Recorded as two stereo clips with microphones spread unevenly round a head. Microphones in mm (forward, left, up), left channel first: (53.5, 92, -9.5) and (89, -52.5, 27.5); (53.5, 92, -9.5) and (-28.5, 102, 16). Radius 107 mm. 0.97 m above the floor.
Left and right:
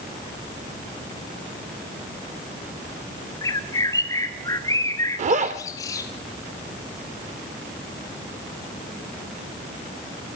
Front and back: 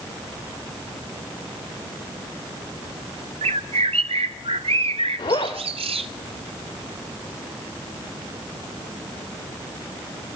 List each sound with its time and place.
3.4 s a bird: 175° left, 0.7 m
5.2 s a zipper: 70° right, 0.9 m